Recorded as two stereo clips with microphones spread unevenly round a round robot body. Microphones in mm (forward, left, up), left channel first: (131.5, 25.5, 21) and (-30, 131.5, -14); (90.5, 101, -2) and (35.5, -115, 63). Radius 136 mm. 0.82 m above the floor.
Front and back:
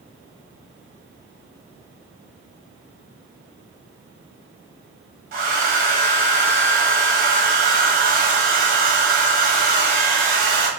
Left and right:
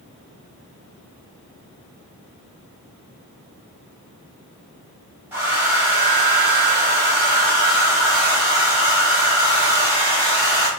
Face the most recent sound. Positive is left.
turn(degrees=165)